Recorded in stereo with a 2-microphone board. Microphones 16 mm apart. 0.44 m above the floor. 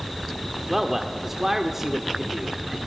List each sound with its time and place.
0.7 s a man speaking: 20° right (ahead or behind), 1.1 m